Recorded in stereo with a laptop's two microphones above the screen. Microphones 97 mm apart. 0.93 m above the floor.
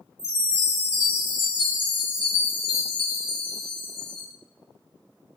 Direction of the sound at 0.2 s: 60° left (ahead or behind).